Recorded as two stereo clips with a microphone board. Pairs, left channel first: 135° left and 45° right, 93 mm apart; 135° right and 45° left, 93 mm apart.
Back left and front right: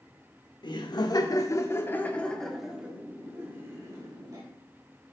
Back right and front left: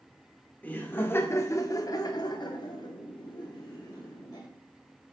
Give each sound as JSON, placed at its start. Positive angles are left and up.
{"t": 0.6, "sound": "laughter", "azimuth_deg": 155, "distance_m": 1.4}